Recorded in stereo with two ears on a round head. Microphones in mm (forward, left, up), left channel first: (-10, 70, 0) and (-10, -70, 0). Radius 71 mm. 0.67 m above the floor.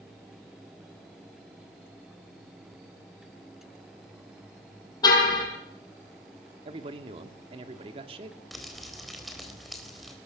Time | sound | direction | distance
5.0 | a car horn | 25° left (ahead or behind) | 9 m
6.7 | a man speaking | 35° right (ahead or behind) | 1.8 m
8.5 | crumpling | centre (ahead or behind) | 4 m